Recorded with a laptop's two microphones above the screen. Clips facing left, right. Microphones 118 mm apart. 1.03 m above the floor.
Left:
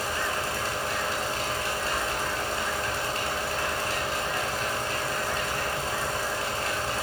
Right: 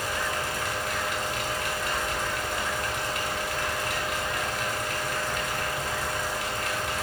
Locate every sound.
0.0 s a fan: 35° left (ahead or behind), 4.5 m